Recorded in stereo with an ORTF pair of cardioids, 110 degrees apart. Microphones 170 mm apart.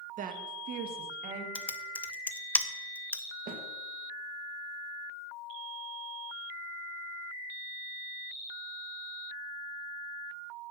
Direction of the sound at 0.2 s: 60° right.